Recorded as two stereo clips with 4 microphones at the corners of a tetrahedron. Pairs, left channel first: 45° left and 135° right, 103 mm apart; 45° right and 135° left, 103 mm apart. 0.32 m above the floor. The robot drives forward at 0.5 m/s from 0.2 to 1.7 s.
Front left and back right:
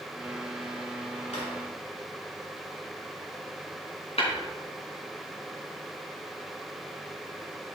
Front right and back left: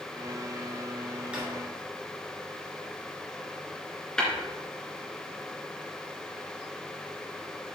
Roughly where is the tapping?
Ahead left.